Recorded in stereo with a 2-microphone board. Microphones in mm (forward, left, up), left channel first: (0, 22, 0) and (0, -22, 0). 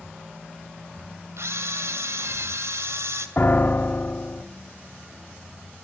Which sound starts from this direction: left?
A piano, at 3.4 s.